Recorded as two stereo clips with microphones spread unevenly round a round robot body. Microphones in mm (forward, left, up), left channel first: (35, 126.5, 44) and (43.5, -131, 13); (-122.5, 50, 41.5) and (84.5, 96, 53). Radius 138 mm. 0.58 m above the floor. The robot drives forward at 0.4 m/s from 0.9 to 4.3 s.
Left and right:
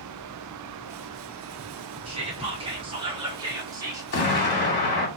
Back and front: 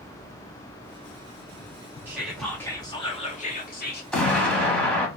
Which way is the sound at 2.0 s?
65° right.